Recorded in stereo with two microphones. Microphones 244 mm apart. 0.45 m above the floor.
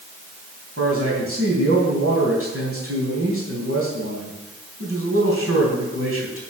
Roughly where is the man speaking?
Right.